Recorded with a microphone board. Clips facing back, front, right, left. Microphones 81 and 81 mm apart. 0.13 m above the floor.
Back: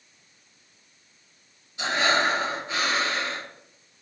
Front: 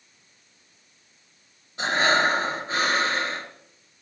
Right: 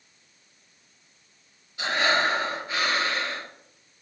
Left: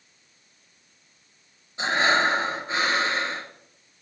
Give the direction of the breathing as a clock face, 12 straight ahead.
11 o'clock.